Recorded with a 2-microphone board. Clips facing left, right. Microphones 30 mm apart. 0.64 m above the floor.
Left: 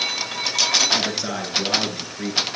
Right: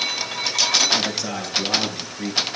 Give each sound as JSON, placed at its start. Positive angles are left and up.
{"t": 0.9, "sound": "a man speaking", "side_deg": 15, "distance_m": 9.0}